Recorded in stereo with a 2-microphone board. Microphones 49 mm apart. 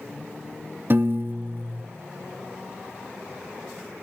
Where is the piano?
50° right (ahead or behind), 0.6 m.